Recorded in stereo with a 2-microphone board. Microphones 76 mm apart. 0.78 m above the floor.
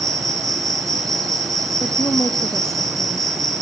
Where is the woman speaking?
45° left (ahead or behind), 1.2 m.